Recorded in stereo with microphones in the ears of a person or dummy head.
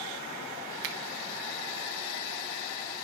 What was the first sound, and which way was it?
A finger snap, 55° right (ahead or behind).